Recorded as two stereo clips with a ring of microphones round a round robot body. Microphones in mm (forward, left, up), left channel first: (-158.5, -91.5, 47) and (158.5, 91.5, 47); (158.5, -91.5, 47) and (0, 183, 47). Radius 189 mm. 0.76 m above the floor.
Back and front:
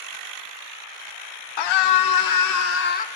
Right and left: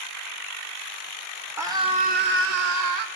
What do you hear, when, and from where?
1.6 s a scream: 155° right, 2.5 m; by 3.1 s 140° left, 2.0 m